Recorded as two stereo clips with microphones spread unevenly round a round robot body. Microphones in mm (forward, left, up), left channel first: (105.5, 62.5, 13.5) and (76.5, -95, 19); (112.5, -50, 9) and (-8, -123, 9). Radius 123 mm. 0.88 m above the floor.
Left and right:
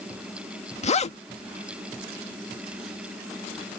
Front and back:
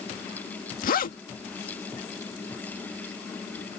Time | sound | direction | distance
0.8 | a zipper | 35° left | ?